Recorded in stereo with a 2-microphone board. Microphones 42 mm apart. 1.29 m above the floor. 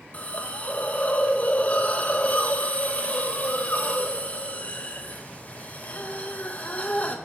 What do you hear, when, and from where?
0.1 s a hiss: 35° left (ahead or behind), 0.5 m